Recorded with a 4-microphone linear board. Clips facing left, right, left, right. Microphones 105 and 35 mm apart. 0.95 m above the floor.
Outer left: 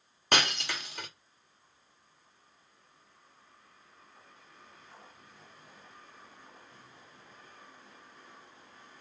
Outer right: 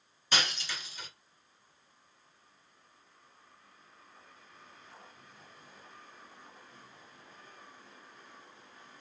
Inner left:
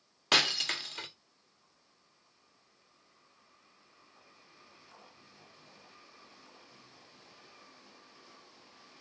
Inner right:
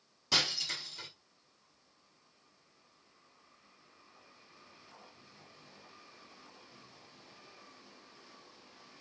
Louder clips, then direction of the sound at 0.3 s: Outer left 4 dB, inner left 5 dB; 60° left (ahead or behind).